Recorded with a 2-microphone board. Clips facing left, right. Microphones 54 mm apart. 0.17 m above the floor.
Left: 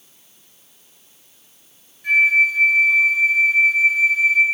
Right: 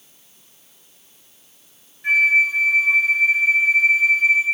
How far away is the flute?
About 1.6 m.